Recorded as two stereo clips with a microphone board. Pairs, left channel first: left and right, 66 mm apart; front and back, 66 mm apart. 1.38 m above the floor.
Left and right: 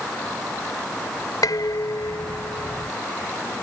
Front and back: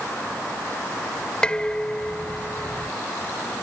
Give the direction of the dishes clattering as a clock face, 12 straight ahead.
10 o'clock.